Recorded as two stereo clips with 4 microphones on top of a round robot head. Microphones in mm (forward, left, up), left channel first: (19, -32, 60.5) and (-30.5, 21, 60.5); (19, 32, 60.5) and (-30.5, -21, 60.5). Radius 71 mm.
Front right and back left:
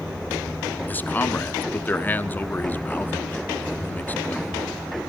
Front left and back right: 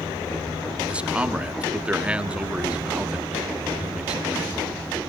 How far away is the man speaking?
About 1.1 m.